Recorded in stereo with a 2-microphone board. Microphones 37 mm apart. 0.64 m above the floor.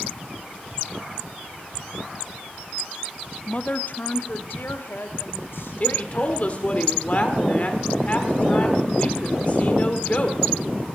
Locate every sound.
3.5 s a woman speaking: 30° left (ahead or behind), 0.9 m; by 6.7 s 75° left (ahead or behind), 4 m
5.8 s a woman speaking: 40° left (ahead or behind), 1.7 m